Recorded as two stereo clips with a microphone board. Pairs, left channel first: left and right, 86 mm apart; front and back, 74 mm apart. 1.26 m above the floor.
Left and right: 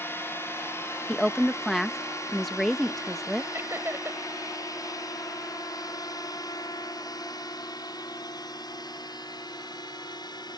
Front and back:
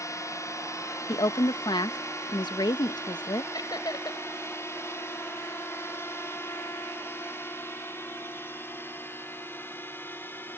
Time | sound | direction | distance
0.0 | a drone | 35° left | ?
1.1 | a woman speaking | straight ahead | ?
3.5 | laughter | 30° right | ?